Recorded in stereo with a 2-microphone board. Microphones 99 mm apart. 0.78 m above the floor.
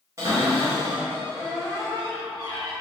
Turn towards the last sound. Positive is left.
turn(degrees=-30)  # may be behind; listen again after turning